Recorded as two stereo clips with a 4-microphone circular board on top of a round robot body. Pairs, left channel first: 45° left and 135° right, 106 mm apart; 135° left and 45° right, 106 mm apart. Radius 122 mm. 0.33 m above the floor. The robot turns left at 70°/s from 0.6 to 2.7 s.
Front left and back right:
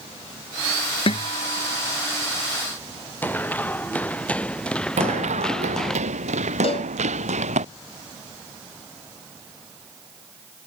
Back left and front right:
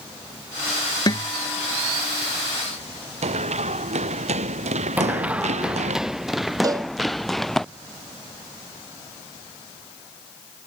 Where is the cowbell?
10° left.